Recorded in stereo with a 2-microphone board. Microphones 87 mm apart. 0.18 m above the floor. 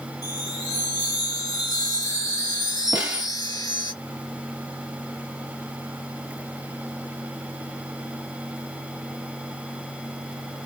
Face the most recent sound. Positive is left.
turn(degrees=-15)  # may be behind; listen again after turning